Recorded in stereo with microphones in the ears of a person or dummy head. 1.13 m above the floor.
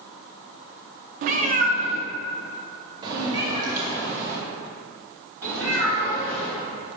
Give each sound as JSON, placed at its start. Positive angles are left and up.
{"t": 1.2, "sound": "a cat meowing", "side_deg": -45, "distance_m": 0.7}